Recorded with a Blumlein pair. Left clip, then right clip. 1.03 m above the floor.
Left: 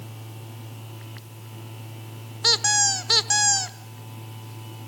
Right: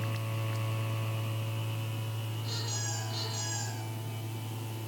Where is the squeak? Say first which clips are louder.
Left 19 dB; 45° left, 1.3 m.